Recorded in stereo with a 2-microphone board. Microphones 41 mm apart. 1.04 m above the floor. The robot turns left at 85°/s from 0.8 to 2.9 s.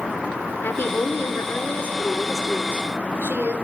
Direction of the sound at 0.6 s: 125° left.